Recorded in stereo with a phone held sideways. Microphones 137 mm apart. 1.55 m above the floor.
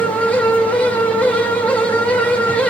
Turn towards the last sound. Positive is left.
turn(degrees=10)  # may be behind; listen again after turning